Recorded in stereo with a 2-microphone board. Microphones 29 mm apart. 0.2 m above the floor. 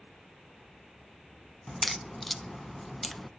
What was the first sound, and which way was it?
A crack, 5° left (ahead or behind).